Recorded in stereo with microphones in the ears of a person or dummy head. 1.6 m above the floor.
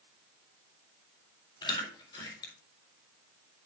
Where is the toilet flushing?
No toilet flushing in this recording.